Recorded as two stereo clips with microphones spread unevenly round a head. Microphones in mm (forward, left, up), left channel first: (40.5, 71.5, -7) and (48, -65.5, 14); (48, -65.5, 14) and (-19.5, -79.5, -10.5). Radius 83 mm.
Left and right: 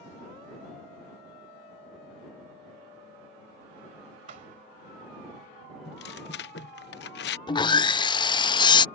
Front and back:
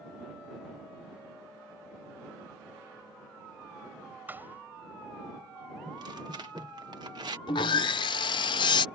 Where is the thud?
95° right.